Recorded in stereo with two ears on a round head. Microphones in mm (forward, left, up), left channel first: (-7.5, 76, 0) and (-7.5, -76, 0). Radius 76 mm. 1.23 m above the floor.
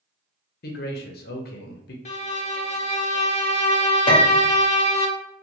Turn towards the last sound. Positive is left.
turn(degrees=30)  # may be behind; listen again after turning